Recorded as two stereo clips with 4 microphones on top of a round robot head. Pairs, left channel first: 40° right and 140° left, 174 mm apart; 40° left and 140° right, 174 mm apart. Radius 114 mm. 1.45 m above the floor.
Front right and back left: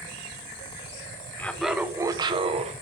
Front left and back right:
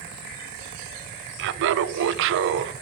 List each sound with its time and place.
1.4 s laughter: 120° right, 0.7 m; by 2.7 s 165° right, 1.0 m